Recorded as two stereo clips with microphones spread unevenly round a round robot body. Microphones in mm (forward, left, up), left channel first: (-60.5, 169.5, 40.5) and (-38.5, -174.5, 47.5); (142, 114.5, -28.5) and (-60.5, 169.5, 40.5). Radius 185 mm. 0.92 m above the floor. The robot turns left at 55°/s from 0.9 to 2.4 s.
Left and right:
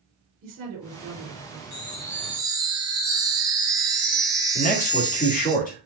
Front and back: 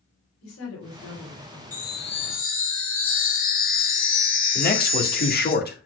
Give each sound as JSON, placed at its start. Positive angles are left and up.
{"t": 0.4, "sound": "a woman speaking", "azimuth_deg": -20, "distance_m": 3.5}
{"t": 1.7, "sound": "a chime", "azimuth_deg": 35, "distance_m": 2.0}
{"t": 4.5, "sound": "a man speaking", "azimuth_deg": 25, "distance_m": 2.0}